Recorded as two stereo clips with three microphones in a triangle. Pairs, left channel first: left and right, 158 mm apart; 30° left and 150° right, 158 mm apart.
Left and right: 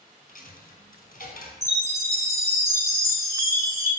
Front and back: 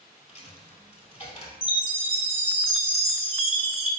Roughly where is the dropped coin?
Left.